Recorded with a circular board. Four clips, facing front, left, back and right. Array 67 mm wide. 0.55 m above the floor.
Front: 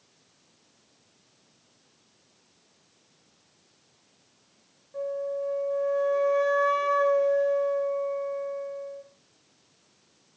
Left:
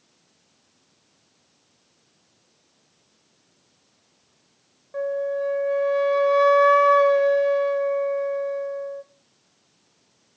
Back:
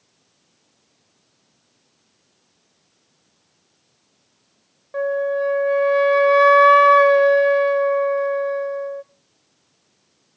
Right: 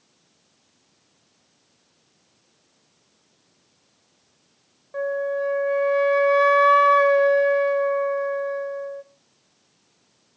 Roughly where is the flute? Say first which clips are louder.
Right 1 dB, back 10 dB; behind.